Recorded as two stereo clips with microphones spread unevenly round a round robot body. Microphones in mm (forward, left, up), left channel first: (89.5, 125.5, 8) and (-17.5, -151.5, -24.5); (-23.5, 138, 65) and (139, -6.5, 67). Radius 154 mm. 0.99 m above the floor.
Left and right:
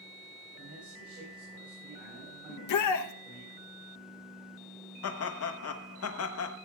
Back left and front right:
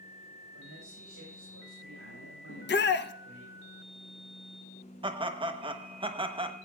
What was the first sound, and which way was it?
A man speaking, 65° right.